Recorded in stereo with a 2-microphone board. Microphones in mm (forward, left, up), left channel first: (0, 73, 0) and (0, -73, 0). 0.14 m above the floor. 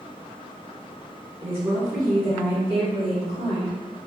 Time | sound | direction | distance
1.4 | a woman speaking | 20° right (ahead or behind) | 1.5 m